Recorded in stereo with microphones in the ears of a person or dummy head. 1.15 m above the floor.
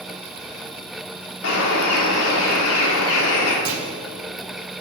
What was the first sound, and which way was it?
A bird, 80° left.